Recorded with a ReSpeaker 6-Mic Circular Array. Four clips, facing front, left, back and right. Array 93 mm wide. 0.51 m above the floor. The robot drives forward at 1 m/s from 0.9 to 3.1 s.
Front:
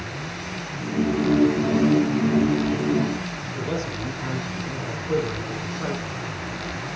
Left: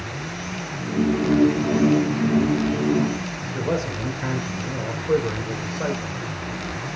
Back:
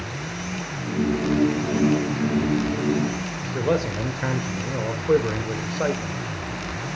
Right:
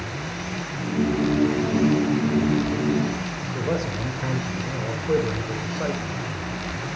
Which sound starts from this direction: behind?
A man speaking, at 3.4 s.